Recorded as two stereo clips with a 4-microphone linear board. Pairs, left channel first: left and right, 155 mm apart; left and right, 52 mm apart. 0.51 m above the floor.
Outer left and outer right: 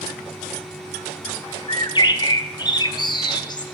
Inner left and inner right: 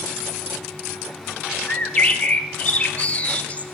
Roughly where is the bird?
Left.